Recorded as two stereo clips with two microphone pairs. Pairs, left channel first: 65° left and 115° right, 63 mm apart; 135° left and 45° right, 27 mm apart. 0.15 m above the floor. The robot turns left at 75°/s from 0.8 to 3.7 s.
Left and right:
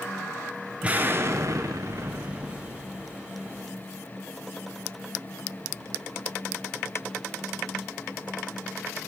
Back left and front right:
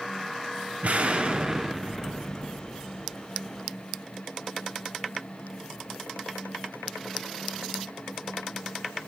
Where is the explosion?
50° right, 0.5 m; by 3.2 s 130° left, 0.5 m.